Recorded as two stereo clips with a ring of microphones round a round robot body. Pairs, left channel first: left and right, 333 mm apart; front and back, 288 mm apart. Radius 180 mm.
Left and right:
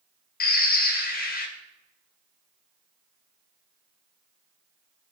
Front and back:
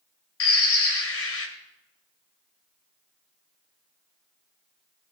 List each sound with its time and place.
0.4 s a bird: 30° left, 1.9 m